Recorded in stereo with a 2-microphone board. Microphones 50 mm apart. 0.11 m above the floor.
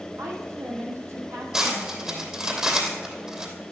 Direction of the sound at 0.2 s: 70° right (ahead or behind).